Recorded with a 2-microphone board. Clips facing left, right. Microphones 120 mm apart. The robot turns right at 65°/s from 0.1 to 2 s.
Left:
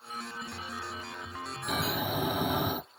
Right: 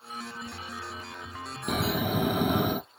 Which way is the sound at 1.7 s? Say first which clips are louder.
Right 4 dB; 50° right (ahead or behind).